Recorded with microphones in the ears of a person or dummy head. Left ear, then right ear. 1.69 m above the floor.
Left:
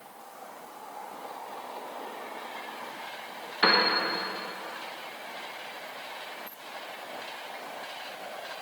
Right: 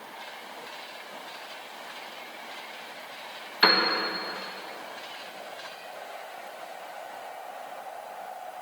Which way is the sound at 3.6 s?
20° right (ahead or behind).